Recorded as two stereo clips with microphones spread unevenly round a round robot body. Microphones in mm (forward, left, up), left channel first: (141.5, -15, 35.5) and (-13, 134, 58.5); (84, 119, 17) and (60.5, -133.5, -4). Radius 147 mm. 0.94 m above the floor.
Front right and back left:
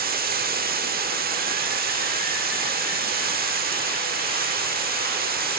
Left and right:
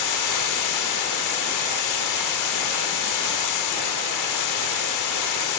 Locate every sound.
0.0 s running water: 90° left, 1.5 m